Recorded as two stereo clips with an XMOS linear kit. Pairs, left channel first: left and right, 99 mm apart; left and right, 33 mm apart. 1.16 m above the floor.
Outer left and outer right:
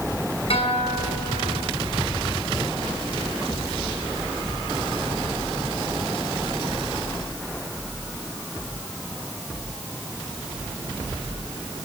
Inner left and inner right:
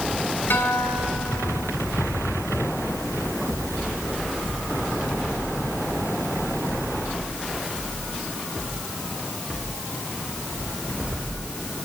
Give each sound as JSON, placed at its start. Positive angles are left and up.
{"t": 0.5, "sound": "a guitar", "side_deg": 80, "distance_m": 5.5}